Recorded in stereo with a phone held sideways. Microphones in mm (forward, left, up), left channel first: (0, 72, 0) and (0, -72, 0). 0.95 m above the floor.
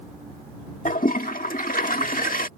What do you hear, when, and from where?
0.8 s a toilet flushing: 70° left (ahead or behind)